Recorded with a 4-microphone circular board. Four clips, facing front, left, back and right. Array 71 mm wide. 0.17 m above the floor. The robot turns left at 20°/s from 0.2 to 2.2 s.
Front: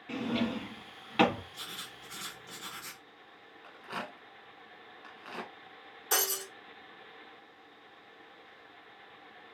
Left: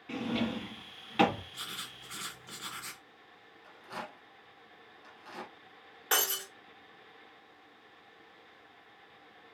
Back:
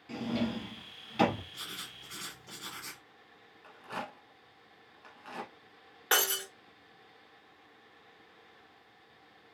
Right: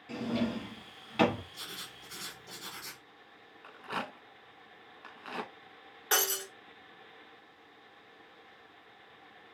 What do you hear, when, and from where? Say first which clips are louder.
0.1 s a drawer: even, front 1 dB; 30° left, 0.8 m; by 1.4 s 5° left, 0.8 m
1.5 s writing: left 2 dB, even; 95° left, 1.5 m; by 3.0 s 85° left, 1.5 m
3.6 s a rattle: right 5 dB, even; 75° right, 0.7 m
6.1 s breaking glass: right 1 dB, back 3 dB; straight behind, 1.5 m